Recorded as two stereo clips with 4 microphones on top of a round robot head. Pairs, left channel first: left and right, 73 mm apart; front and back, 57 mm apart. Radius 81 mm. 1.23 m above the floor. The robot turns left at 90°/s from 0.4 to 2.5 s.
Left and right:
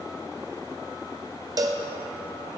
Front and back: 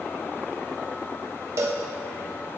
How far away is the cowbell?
About 0.8 m.